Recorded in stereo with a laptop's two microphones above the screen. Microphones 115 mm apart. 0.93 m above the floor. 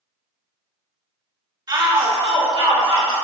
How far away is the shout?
About 1.1 m.